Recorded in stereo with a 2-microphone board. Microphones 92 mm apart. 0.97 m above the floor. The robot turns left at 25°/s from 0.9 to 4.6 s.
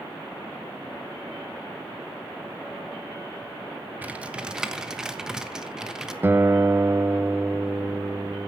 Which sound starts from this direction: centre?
Typing on a keyboard, at 4.0 s.